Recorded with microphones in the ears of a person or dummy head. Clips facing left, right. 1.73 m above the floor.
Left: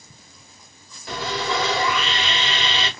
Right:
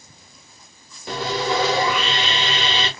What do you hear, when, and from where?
1.1 s sawing: 25° right (ahead or behind), 1.2 m